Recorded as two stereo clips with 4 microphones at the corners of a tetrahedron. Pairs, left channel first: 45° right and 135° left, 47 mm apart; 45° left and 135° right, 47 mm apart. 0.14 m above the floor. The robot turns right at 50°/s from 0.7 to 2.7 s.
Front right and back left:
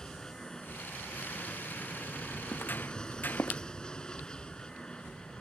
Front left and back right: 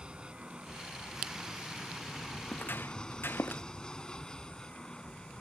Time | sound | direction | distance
0.0 | an aircraft | 100° right | ?
2.5 | footsteps | 10° right | ?